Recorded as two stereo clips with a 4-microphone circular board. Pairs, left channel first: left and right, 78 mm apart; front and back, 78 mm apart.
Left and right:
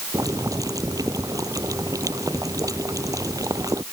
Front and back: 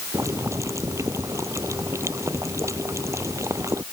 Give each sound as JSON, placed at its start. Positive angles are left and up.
{"t": 0.1, "sound": "boiling", "azimuth_deg": -130}